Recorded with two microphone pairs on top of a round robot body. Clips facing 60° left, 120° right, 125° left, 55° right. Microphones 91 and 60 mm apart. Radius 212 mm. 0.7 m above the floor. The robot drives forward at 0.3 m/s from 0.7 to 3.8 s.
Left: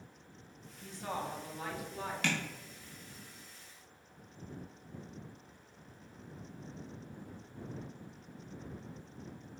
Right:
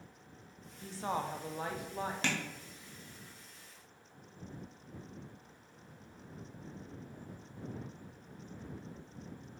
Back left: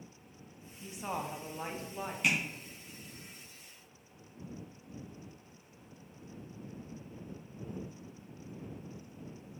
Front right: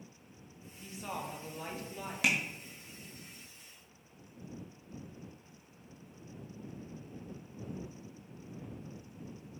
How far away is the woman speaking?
About 0.6 m.